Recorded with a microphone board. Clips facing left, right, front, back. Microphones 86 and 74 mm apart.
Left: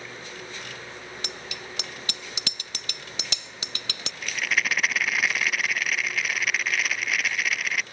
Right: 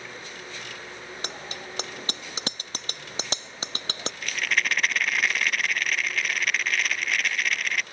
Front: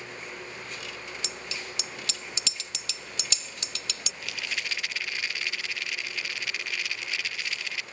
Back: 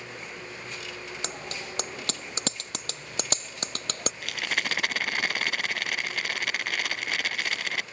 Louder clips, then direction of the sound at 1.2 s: Right 1 dB, back 2 dB; 140° right.